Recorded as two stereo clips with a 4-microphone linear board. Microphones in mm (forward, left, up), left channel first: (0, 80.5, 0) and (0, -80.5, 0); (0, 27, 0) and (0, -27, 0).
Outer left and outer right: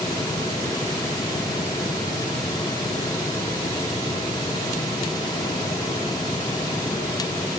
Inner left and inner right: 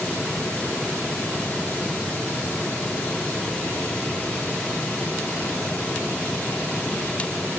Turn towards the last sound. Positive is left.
No sound to turn to.